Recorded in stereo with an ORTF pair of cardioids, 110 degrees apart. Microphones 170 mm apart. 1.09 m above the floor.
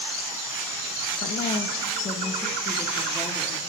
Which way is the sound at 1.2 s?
55° left.